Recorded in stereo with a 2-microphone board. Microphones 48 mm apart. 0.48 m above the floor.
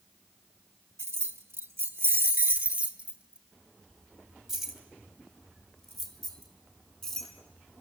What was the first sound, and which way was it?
Keys jangling, 60° right (ahead or behind).